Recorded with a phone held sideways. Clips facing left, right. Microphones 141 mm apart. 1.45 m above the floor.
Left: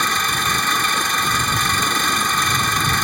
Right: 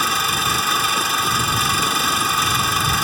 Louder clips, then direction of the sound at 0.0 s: Even; 5° right (ahead or behind).